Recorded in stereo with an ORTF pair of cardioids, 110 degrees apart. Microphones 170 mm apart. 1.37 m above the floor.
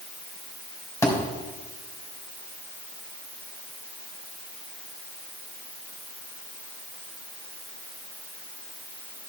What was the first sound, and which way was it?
A thud, 15° left.